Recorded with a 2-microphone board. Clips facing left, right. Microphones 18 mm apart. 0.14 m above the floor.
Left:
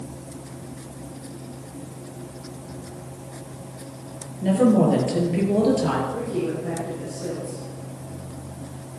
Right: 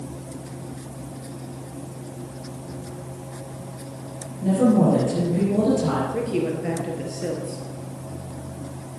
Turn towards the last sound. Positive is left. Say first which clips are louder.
# right 2 dB
turn(degrees=-60)  # may be behind; listen again after turning